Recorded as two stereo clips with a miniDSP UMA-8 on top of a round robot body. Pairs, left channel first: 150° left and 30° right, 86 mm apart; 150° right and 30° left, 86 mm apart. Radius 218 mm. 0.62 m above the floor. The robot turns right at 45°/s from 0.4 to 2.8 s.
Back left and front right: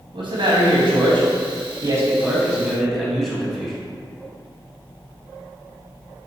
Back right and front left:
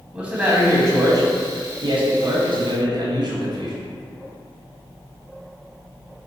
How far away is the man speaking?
About 1.2 m.